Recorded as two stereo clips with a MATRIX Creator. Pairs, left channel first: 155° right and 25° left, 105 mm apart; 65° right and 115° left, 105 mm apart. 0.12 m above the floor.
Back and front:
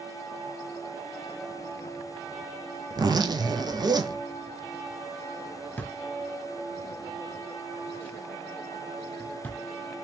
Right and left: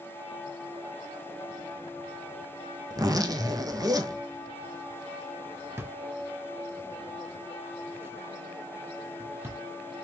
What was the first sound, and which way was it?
A zipper, 65° left.